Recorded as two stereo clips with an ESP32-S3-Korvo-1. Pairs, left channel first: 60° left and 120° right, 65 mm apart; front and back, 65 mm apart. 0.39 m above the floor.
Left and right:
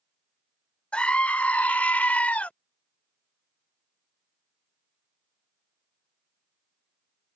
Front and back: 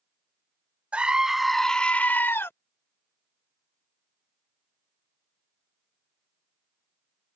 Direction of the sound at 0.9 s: 125° left.